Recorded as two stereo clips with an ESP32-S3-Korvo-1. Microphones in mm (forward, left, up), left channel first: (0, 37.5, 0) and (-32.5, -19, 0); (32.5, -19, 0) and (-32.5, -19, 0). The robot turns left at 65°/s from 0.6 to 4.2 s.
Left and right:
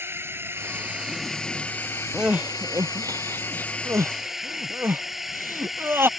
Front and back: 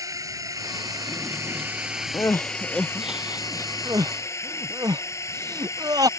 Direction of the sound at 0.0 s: 165° right.